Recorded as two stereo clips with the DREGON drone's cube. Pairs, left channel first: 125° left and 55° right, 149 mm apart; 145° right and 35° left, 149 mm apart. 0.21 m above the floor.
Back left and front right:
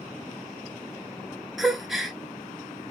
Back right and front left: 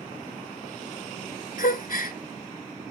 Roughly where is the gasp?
Behind right.